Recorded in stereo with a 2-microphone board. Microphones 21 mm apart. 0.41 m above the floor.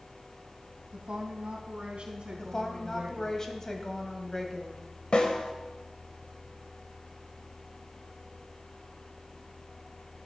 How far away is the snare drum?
About 1.7 m.